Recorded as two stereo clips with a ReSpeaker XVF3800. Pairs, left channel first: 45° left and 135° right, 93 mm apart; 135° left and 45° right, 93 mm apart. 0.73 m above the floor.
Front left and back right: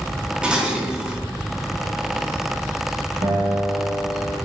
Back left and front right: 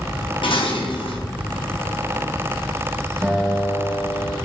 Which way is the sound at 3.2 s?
120° right.